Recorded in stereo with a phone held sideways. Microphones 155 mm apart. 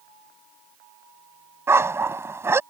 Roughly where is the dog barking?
Centre.